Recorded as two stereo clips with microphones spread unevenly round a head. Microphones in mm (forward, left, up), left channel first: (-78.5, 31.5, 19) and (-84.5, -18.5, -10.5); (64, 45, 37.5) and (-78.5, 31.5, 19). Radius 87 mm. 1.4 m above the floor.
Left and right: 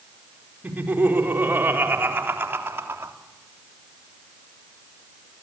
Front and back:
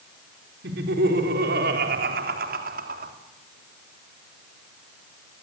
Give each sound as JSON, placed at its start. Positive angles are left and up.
{"t": 0.6, "sound": "laughter", "azimuth_deg": -155, "distance_m": 4.5}